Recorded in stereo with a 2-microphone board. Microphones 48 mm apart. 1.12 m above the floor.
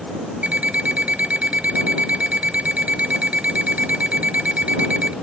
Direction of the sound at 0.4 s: 30° right (ahead or behind).